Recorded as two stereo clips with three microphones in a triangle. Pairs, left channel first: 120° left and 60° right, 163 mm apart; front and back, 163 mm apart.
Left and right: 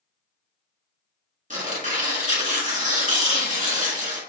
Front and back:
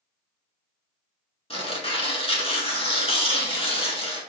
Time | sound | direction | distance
1.5 | tearing paper | 45° right | 1.2 m